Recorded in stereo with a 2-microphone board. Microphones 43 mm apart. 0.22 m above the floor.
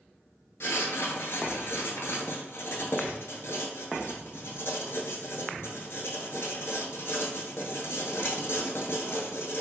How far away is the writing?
About 0.6 m.